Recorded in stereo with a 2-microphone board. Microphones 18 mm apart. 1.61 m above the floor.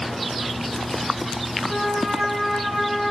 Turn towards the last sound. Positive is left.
turn(degrees=-25)  # may be behind; listen again after turning